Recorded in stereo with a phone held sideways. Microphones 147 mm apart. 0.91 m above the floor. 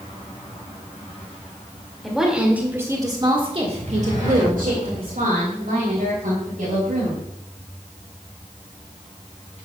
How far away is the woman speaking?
About 2.5 m.